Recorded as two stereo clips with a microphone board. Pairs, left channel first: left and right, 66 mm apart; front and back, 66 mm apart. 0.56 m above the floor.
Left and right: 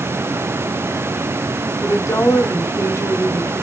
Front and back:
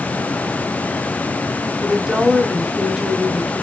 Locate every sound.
1.8 s a woman speaking: 100° left, 0.9 m